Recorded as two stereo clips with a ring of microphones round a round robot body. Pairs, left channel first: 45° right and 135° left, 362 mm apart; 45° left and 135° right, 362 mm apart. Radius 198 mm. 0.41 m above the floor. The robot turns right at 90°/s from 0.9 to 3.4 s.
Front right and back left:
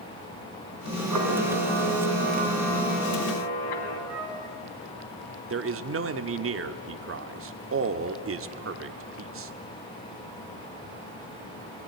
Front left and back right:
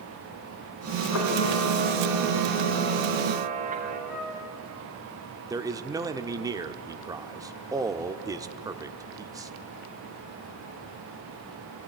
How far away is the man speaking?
About 1.0 m.